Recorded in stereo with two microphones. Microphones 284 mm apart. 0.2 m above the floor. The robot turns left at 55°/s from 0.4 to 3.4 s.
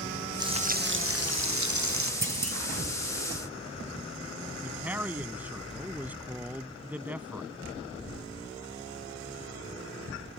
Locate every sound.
0.4 s frying: 15° right; by 2.1 s 110° right
2.2 s a clunk: 45° right (ahead or behind); by 2.6 s 65° right (ahead or behind)
4.6 s a man speaking: 5° right (ahead or behind)